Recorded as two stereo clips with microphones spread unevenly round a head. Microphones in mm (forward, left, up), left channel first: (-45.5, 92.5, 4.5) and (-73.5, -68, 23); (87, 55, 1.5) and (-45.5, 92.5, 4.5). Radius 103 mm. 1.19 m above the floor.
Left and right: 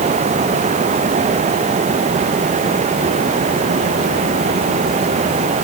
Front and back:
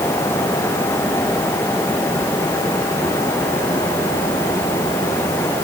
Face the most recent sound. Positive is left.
No sound to turn to.